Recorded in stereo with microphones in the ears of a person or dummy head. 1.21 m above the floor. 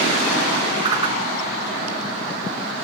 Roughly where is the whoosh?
Right.